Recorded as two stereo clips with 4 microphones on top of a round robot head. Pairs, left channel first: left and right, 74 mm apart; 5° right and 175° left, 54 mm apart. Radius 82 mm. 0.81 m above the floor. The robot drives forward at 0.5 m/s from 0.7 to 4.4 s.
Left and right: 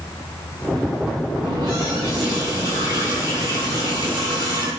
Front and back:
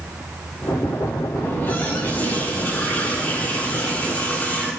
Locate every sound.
1.4 s a running tap: 65° right, 6.5 m; by 4.7 s 75° right, 6 m